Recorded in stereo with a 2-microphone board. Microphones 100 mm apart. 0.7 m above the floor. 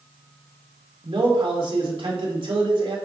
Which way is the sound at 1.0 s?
60° right (ahead or behind).